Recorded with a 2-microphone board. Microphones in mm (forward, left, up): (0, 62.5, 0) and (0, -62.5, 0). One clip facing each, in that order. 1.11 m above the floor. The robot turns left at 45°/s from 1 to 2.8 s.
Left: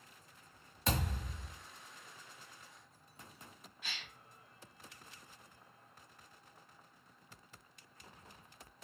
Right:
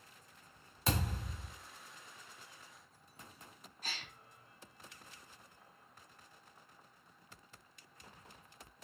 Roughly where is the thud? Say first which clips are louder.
Even; centre.